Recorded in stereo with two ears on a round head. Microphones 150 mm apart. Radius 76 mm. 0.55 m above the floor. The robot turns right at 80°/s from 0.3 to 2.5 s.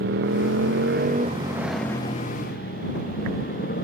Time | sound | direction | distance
0.0 | a motorcycle | 75° right (ahead or behind) | ?